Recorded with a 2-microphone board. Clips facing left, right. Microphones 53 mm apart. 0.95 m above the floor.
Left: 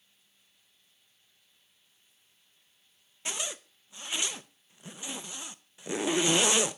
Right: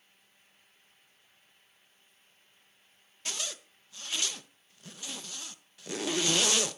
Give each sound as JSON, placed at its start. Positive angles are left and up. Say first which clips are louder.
{"t": 3.2, "sound": "a zipper", "louder": "left 2 dB", "side_deg": 20, "distance_m": 0.5}